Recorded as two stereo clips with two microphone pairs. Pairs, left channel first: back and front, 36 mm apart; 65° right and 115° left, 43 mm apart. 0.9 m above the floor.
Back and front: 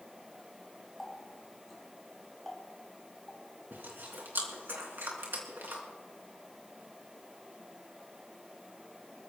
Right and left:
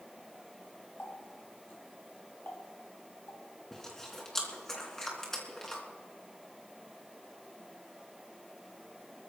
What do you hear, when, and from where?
1.0 s a running tap: 90° right, 4.5 m
3.7 s chewing: 10° left, 3.5 m